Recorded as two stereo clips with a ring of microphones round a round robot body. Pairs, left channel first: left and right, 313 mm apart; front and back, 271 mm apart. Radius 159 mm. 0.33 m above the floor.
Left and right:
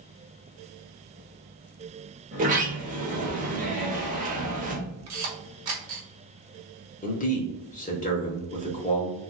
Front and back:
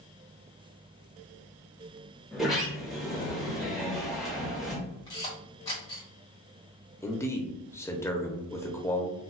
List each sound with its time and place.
2.3 s a sliding door: 90° right, 0.9 m
5.1 s a camera shutter: 75° right, 1.4 m
7.0 s a man speaking: 70° left, 0.9 m